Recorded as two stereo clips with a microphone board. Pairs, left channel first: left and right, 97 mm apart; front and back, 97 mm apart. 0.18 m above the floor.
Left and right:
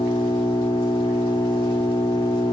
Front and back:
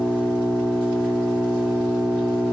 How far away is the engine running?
About 7.5 m.